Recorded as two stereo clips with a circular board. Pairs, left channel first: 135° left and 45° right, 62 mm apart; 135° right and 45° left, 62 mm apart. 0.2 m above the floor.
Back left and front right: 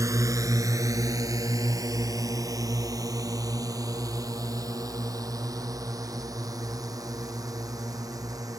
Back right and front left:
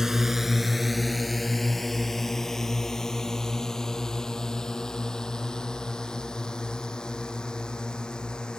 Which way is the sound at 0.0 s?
35° right.